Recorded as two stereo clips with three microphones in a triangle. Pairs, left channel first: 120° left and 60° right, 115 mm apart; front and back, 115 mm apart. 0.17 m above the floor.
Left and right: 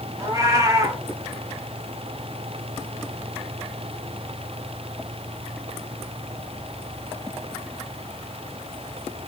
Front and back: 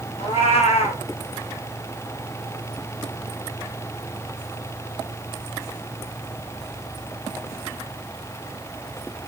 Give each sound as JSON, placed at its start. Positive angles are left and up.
{"t": 0.2, "sound": "a cat meowing", "azimuth_deg": -5, "distance_m": 0.9}